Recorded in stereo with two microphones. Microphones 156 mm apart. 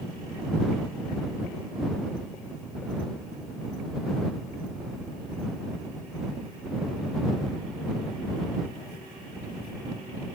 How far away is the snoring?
No snoring in this recording.